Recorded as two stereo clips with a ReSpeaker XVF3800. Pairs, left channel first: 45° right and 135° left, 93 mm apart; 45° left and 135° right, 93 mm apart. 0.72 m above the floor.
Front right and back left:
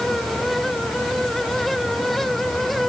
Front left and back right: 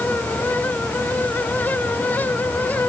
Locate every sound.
Only background noise.